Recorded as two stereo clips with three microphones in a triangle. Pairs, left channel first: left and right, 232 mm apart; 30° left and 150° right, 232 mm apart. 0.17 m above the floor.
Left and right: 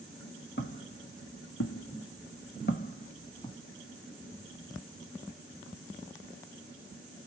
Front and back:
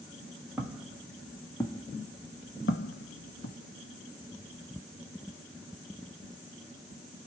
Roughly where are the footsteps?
Behind left.